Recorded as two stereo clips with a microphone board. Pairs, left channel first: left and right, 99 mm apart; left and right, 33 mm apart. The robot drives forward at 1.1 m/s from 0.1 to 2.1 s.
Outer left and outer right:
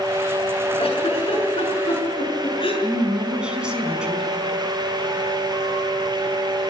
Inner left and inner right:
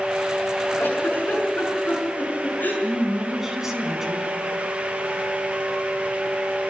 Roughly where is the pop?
I don't hear a pop.